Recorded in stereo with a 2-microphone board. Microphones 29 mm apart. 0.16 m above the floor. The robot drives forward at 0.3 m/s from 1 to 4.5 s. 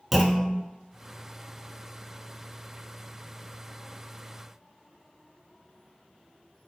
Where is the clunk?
5° right (ahead or behind), 0.5 m.